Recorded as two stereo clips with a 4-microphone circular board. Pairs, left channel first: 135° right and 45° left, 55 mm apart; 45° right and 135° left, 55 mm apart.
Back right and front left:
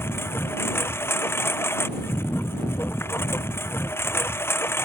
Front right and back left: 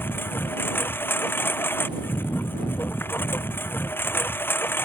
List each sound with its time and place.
0.0 s a lawn mower: 90° right